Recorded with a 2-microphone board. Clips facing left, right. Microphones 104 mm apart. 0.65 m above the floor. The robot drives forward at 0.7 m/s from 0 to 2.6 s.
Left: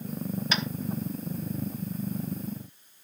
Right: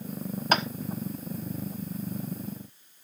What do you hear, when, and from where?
0.5 s tapping: 50° right (ahead or behind), 0.9 m